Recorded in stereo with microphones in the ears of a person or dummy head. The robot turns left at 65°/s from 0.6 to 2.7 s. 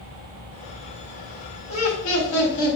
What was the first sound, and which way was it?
Laughter, 115° left.